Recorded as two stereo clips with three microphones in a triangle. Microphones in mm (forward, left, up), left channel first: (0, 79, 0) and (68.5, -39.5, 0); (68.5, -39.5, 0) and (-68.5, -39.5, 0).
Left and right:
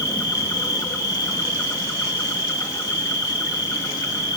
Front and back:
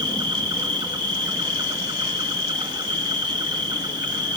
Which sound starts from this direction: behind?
An insect, at 0.0 s.